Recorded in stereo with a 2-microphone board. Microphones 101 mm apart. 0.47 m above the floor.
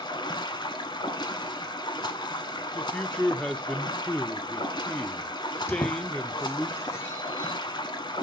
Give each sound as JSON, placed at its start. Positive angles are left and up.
{"t": 0.0, "sound": "running water", "side_deg": 50, "distance_m": 1.0}
{"t": 2.8, "sound": "a man speaking", "side_deg": 10, "distance_m": 0.8}
{"t": 5.7, "sound": "a squeak", "side_deg": 30, "distance_m": 1.4}